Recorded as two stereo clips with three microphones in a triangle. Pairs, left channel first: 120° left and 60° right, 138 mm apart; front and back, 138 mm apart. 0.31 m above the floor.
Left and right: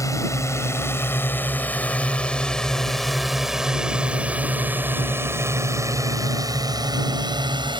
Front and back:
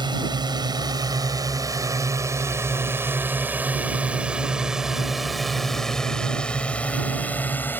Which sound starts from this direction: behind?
A drone, at 0.0 s.